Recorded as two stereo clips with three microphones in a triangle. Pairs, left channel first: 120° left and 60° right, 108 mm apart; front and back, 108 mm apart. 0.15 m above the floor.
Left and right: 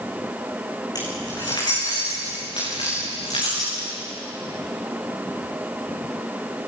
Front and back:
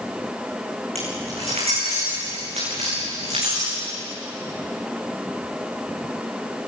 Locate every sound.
0.9 s keys jangling: 170° left, 9.5 m; by 3.9 s 150° left, 12 m